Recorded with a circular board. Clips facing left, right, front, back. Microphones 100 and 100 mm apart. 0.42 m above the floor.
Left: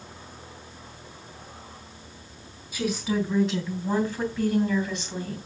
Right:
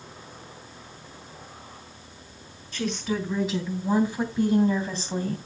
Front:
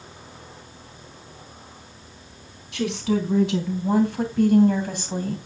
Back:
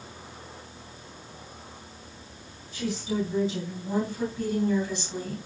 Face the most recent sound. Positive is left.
turn(degrees=-45)